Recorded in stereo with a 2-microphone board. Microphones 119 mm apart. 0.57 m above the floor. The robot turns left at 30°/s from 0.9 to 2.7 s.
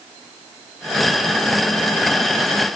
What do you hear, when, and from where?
Only background noise.